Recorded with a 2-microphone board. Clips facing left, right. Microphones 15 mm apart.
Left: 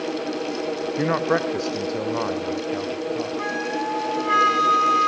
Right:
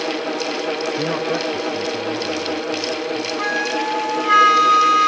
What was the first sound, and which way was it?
A man speaking, 20° left (ahead or behind).